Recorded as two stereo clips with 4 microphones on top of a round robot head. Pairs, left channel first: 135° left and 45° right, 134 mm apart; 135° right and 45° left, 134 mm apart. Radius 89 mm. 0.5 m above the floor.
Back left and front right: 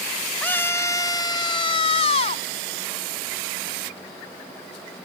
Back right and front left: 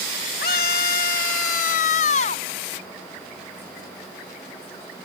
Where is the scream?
145° right; by 2.4 s straight behind.